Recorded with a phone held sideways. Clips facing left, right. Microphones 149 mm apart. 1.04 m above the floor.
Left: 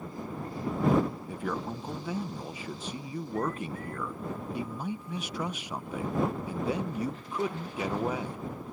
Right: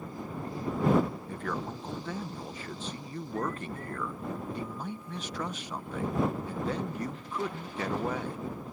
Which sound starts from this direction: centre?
A man speaking, at 1.3 s.